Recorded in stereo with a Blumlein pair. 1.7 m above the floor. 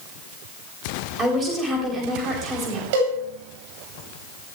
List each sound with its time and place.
1.2 s a woman speaking: 20° right, 9.5 m
2.9 s a cowbell: 50° right, 9.5 m